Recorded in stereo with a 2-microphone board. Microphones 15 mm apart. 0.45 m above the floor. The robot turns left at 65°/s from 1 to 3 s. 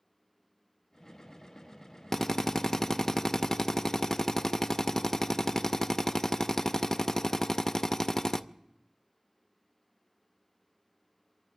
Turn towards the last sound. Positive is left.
turn(degrees=75)